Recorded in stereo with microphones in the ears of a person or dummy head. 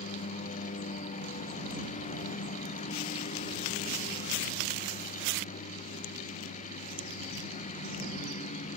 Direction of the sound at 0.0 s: 40° left (ahead or behind).